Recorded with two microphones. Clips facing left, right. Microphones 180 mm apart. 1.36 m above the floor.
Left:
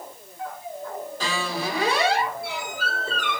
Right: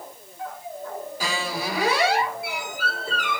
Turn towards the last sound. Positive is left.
turn(degrees=-10)  # may be behind; listen again after turning